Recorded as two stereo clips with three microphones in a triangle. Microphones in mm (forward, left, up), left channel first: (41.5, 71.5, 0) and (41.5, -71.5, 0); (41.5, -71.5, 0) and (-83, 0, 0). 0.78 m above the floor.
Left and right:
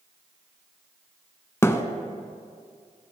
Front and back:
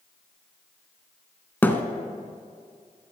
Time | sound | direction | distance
1.6 | a thud | 35° left | 0.7 m